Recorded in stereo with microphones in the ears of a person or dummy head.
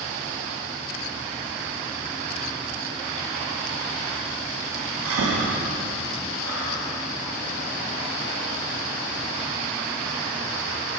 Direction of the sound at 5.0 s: 75° right (ahead or behind).